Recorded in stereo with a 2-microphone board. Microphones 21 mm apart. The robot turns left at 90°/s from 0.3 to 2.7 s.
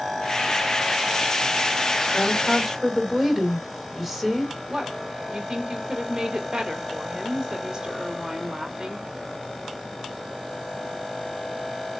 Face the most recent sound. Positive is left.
turn(degrees=-30)  # may be behind; listen again after turning